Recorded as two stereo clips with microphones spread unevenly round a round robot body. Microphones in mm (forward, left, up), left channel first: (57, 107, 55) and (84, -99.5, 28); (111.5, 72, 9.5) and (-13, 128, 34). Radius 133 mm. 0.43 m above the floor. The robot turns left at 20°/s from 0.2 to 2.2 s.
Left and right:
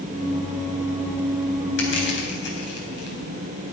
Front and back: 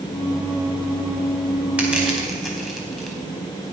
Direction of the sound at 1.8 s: 75° left.